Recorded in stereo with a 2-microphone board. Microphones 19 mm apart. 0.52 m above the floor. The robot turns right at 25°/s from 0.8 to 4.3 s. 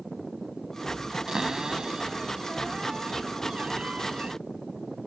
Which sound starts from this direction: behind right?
A cupboard door, at 1.3 s.